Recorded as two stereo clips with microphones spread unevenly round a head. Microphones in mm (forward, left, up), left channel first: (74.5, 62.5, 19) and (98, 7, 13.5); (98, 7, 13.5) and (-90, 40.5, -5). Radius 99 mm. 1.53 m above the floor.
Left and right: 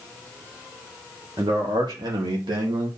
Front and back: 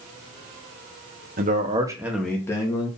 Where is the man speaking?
140° right, 0.9 m; by 2.9 s 80° right, 1.3 m.